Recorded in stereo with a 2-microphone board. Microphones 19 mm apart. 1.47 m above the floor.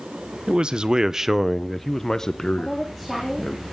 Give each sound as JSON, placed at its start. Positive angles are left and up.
{"t": 0.5, "sound": "a man speaking", "side_deg": -60, "distance_m": 1.1}
{"t": 2.6, "sound": "a woman speaking", "side_deg": -10, "distance_m": 3.0}